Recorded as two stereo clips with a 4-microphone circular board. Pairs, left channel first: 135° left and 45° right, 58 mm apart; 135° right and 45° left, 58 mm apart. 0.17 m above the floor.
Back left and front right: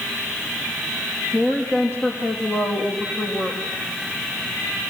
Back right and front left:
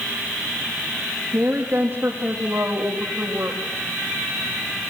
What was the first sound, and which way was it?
A woman speaking, 95° left.